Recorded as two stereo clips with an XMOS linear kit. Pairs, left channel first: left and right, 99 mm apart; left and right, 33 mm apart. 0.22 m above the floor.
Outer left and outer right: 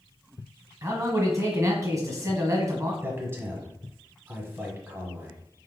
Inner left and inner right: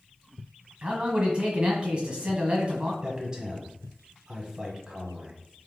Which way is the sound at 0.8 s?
30° right (ahead or behind).